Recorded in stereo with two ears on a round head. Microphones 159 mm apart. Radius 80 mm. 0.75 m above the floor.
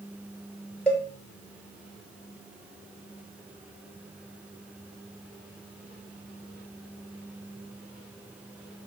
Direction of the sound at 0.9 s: 5° left (ahead or behind).